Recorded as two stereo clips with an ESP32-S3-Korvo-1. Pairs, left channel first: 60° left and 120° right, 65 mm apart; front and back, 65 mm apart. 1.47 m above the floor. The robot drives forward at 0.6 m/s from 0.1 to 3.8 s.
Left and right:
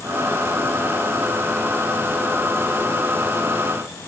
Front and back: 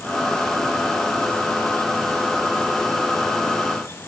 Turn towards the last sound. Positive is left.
No sound to turn to.